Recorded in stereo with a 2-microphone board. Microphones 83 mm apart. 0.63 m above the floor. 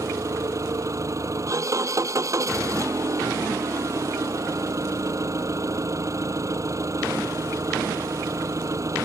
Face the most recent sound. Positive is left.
turn(degrees=-35)  # may be behind; listen again after turning